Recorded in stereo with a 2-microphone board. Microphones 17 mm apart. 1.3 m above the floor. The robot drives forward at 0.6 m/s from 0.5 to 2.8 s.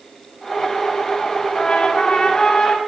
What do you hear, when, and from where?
1.6 s a trumpet: 55° left (ahead or behind), 5 m; by 2.8 s 50° left (ahead or behind), 5.5 m